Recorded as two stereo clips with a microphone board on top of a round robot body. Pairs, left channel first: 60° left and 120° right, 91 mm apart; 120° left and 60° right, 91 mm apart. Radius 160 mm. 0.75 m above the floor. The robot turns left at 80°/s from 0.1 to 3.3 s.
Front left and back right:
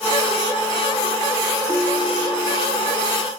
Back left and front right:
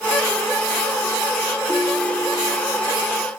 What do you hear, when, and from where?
1.7 s a ringtone: 120° right, 3 m; by 2.8 s 150° left, 3 m